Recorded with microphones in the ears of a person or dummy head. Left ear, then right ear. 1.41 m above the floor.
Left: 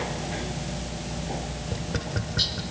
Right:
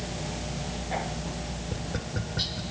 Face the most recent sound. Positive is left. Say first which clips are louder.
# left 3 dB
turn(degrees=10)  # may be behind; listen again after turning